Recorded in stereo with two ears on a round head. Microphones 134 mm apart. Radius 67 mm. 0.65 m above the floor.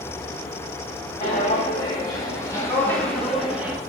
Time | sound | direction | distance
1.2 | footsteps | 35° left (ahead or behind) | 1.8 m